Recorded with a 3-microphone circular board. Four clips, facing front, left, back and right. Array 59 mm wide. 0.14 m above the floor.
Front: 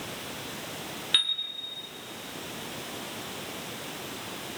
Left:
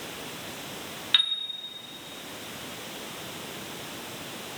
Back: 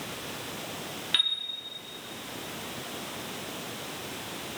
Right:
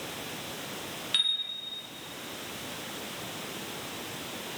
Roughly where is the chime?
Left.